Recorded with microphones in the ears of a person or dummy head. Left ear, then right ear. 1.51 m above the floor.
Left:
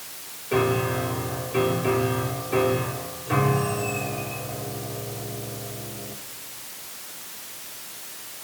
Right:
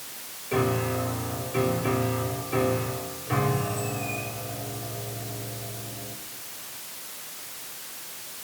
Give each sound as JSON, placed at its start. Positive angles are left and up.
{"t": 0.5, "sound": "a piano", "side_deg": 15, "distance_m": 2.5}